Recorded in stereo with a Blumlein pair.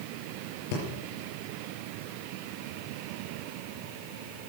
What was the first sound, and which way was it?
Breathing, 45° left.